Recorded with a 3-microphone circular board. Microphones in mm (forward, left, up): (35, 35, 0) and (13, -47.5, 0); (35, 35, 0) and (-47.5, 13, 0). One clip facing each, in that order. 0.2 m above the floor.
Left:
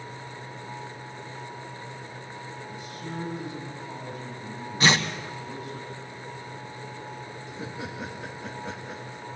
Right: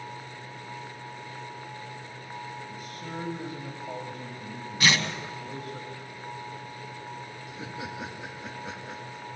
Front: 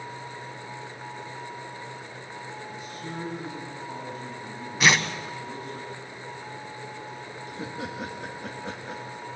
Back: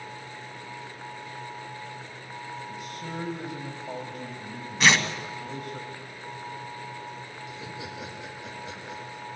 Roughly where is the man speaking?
Behind right.